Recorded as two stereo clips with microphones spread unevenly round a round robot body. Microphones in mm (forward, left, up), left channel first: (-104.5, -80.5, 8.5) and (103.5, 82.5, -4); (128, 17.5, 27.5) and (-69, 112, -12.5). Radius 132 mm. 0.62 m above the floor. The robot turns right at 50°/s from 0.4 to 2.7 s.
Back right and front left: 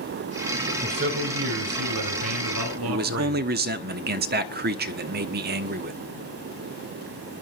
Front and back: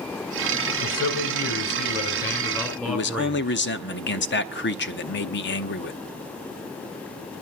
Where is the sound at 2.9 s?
Straight ahead, 1.1 m.